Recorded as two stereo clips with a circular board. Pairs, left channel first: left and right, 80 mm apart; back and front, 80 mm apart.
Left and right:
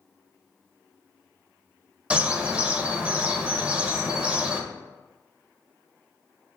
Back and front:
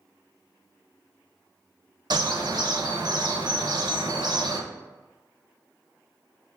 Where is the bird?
20° right, 0.6 m.